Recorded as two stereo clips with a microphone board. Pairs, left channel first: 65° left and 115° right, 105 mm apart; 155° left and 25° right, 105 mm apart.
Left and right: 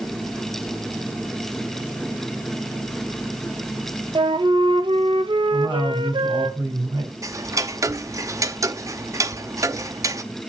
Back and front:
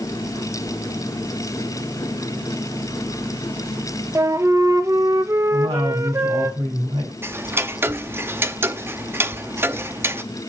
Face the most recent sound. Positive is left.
turn(degrees=-75)